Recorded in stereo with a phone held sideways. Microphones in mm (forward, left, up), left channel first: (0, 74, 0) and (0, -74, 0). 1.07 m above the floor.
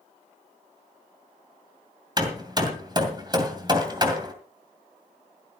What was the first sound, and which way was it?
Hammering, 30° right (ahead or behind).